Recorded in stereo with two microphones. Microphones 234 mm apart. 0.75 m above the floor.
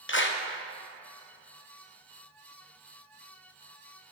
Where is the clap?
55° left (ahead or behind), 0.7 m.